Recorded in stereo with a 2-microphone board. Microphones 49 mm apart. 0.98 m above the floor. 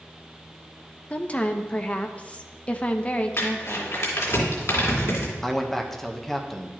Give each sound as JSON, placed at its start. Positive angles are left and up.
{"t": 1.1, "sound": "a woman speaking", "side_deg": 25, "distance_m": 0.7}
{"t": 3.4, "sound": "crumpling", "side_deg": 70, "distance_m": 2.5}
{"t": 5.4, "sound": "a man speaking", "side_deg": 5, "distance_m": 0.8}